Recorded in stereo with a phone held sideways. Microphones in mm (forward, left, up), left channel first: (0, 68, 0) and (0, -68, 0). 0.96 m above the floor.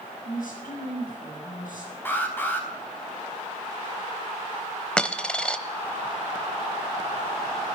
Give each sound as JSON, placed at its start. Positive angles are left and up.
{"t": 0.2, "sound": "a woman speaking", "side_deg": 85, "distance_m": 8.0}
{"t": 2.0, "sound": "an alarm", "side_deg": 15, "distance_m": 3.5}
{"t": 5.0, "sound": "a dropped coin", "side_deg": 5, "distance_m": 0.9}